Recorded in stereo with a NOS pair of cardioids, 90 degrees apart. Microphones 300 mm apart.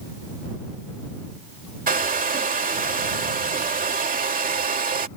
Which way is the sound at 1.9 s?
30° right.